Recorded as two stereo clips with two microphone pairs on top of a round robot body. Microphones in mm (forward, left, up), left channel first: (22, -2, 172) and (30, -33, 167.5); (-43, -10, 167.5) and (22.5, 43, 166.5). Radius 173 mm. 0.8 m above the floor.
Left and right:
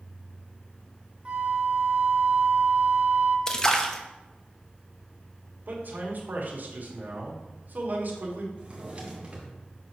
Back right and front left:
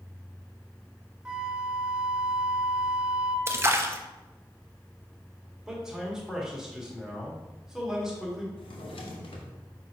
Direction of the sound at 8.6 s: 130° right.